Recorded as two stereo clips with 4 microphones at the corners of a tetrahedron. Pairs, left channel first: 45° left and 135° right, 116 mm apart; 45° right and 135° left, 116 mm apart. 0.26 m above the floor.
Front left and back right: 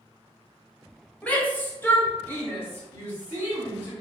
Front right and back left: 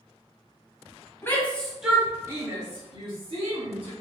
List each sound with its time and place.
1.2 s a shout: 15° right, 0.9 m; by 3.9 s 115° left, 1.7 m